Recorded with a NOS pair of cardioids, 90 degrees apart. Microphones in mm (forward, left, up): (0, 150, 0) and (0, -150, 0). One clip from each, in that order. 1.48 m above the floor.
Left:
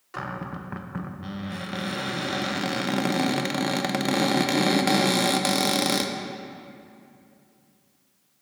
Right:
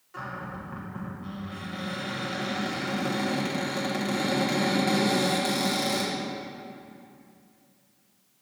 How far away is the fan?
I don't hear a fan.